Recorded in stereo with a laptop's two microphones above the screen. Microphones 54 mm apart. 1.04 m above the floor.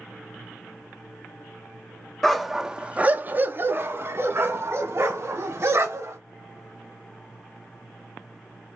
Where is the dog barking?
5° left (ahead or behind), 0.6 m; by 6.2 s 50° right (ahead or behind), 1.9 m.